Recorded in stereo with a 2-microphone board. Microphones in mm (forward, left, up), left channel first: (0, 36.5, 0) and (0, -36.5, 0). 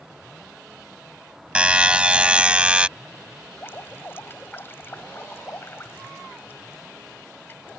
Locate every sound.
1.6 s a buzzer: 15° right (ahead or behind)
3.6 s dripping: 30° left (ahead or behind)